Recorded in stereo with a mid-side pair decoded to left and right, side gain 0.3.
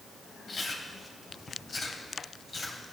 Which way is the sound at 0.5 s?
60° left.